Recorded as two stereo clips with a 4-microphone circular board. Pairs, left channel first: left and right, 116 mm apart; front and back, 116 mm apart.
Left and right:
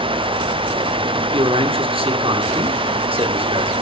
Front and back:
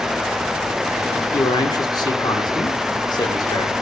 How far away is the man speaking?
About 2.5 m.